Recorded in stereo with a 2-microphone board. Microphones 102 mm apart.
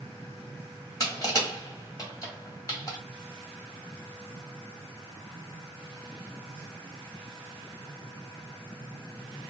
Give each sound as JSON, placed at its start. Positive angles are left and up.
{"t": 1.0, "sound": "crushing", "side_deg": 30, "distance_m": 1.6}